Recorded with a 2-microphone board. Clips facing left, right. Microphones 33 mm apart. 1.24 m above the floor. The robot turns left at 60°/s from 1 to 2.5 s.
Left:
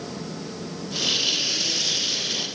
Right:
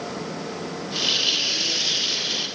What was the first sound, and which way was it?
Only background noise.